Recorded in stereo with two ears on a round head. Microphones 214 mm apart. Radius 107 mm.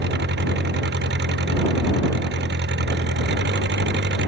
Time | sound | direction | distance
0.0 | an engine running | 50° right (ahead or behind) | ?